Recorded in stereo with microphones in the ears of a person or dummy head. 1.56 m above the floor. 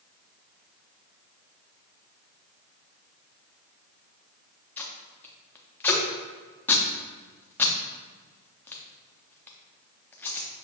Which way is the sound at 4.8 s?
10° left (ahead or behind).